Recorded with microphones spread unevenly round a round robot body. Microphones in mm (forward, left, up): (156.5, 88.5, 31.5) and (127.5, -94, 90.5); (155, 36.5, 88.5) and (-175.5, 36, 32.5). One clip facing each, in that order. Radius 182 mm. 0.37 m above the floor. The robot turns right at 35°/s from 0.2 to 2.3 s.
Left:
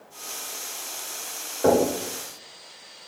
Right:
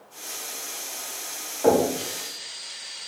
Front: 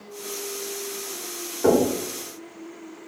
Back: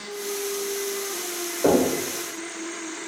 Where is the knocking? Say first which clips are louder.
Even, front 1 dB; 75° left, 1.4 m; by 1.9 s 85° left, 1.4 m.